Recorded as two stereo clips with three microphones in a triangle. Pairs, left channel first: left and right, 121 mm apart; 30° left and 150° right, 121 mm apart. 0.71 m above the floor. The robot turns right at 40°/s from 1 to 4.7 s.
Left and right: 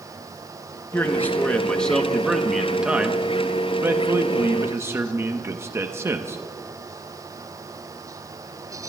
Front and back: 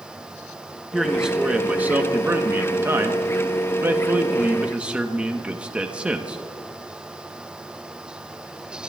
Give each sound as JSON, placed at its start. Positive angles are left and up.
{"t": 0.9, "sound": "a man speaking", "azimuth_deg": 125, "distance_m": 0.8}